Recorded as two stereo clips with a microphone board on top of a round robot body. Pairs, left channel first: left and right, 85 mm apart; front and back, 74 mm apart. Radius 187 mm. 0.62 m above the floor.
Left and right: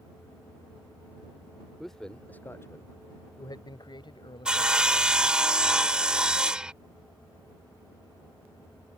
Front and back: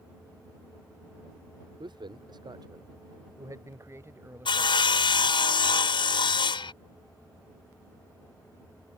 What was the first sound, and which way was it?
A man speaking, straight behind.